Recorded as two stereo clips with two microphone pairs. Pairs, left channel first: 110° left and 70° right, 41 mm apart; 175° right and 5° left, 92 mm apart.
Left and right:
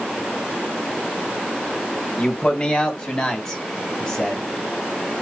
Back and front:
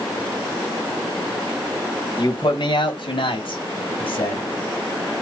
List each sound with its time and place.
2.2 s a man speaking: 165° left, 1.9 m; by 4.4 s straight behind, 3.5 m